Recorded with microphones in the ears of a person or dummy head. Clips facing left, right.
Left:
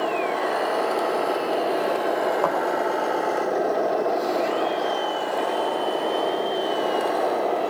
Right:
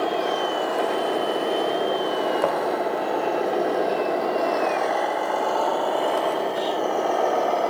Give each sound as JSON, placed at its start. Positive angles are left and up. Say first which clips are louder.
{"t": 2.4, "sound": "a thud", "louder": "right 1 dB", "side_deg": -20, "distance_m": 3.0}